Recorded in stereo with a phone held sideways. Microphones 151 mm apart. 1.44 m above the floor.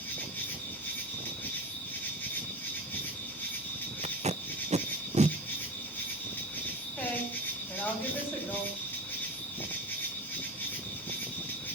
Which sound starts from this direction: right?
Tape being pulled, at 4.0 s.